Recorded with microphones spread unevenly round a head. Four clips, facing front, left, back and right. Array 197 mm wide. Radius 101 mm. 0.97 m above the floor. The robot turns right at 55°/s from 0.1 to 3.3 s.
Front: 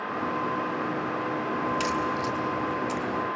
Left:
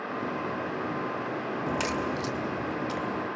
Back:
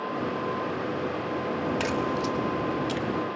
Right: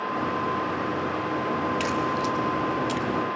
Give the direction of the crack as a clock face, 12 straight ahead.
7 o'clock.